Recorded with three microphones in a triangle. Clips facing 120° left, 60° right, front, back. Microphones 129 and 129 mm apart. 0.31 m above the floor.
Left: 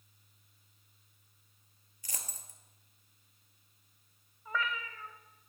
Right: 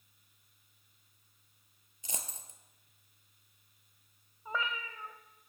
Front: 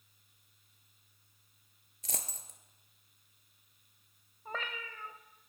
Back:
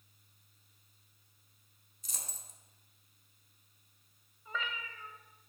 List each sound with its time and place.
2.0 s a dropped coin: 5° left, 0.8 m
4.5 s a cat meowing: straight ahead, 0.7 m